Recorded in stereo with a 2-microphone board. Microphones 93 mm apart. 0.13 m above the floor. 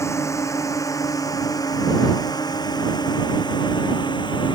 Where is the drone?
30° left (ahead or behind); by 4.5 s 55° left (ahead or behind).